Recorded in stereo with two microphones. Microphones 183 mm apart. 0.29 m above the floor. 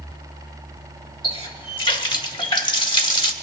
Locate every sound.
1.2 s a running tap: 25° left (ahead or behind), 1.0 m